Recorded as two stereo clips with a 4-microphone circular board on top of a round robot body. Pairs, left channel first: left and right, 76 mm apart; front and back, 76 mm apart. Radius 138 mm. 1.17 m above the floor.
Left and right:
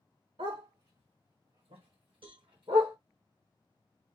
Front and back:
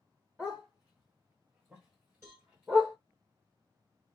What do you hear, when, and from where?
0.4 s a dog barking: 100° right, 2 m; by 3.0 s 105° right, 0.9 m
2.2 s a cowbell: 115° right, 1.8 m